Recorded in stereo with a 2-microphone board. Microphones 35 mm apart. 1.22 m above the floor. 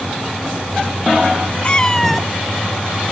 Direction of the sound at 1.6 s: 30° left (ahead or behind).